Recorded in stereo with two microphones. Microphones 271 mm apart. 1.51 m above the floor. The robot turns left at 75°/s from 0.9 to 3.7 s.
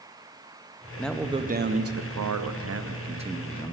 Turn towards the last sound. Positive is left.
turn(degrees=165)